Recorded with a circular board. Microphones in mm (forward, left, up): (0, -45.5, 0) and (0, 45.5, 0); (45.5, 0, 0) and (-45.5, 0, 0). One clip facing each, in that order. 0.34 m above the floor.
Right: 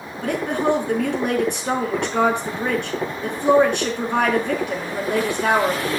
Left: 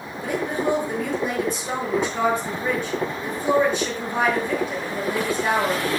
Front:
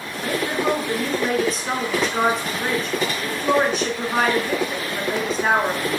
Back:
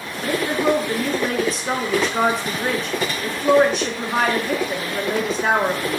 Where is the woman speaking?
90° right, 4 m.